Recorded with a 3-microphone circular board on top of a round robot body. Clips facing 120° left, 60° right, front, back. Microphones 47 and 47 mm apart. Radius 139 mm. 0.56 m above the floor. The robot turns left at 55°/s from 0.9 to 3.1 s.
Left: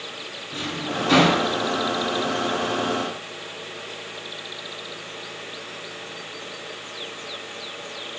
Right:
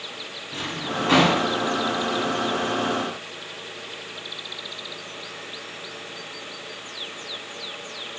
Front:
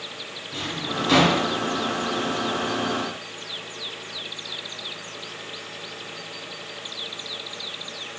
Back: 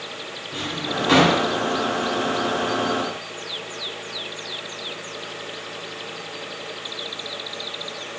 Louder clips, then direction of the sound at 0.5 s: Left 1 dB, back 2 dB; 105° right.